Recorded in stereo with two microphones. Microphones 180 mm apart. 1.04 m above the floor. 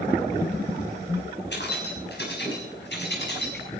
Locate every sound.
1.5 s keys jangling: 75° left (ahead or behind), 5.5 m